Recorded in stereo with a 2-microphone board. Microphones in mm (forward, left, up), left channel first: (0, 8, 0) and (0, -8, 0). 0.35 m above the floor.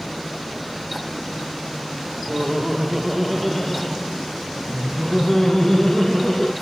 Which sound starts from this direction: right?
Laughter, at 2.3 s.